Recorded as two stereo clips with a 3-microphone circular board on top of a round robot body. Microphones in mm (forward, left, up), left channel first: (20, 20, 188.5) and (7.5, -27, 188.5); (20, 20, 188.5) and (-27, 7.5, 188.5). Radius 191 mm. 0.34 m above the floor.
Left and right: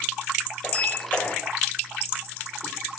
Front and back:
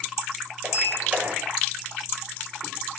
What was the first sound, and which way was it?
A sliding door, 135° left.